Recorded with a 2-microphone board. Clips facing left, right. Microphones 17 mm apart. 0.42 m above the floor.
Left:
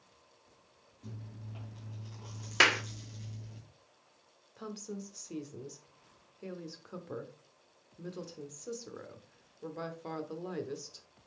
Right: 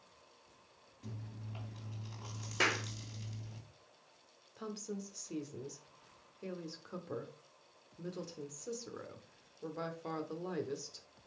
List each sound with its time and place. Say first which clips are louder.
1.0 s chewing: even; 25° right (ahead or behind), 3 m
2.6 s a clap: left 7 dB; 45° left (ahead or behind), 0.7 m
4.6 s a woman speaking: left 1 dB; centre (ahead or behind), 0.8 m